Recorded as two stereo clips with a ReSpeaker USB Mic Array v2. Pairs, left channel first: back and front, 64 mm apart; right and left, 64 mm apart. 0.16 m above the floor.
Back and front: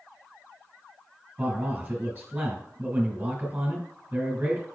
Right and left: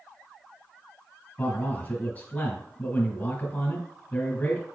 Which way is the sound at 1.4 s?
50° right.